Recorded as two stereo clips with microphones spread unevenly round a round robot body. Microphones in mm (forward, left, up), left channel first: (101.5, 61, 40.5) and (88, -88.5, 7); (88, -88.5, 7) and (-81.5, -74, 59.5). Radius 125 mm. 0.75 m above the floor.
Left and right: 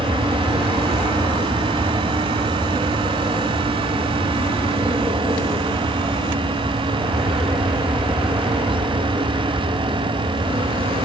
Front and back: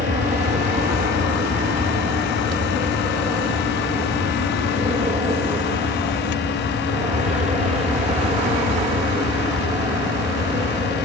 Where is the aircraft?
165° right; by 11.1 s 140° right.